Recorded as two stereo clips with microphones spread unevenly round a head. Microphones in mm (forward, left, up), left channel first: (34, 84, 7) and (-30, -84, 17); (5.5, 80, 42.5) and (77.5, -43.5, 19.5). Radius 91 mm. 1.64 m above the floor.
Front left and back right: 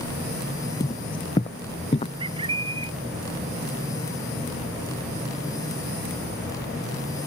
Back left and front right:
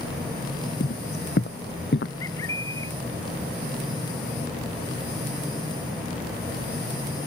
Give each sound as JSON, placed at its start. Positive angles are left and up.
{"t": 0.8, "sound": "footsteps", "azimuth_deg": 135}
{"t": 2.2, "sound": "a bird", "azimuth_deg": -170}